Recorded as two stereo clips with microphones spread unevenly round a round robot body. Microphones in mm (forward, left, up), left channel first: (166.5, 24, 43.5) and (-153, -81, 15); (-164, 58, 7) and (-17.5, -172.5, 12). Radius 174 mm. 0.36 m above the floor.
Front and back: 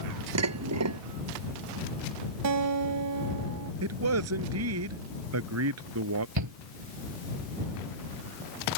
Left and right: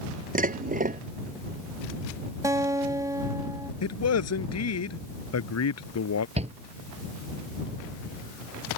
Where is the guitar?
135° right.